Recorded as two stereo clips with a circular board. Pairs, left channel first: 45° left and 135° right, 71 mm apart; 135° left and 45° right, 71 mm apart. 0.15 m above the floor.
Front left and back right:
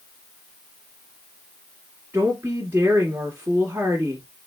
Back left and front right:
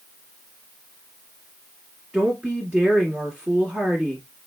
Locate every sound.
2.1 s a woman speaking: 115° right, 1.2 m